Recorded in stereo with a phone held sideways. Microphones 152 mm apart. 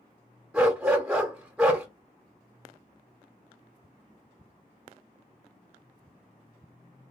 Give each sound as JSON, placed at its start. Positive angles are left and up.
{"t": 0.5, "sound": "a dog barking", "side_deg": -10, "distance_m": 1.4}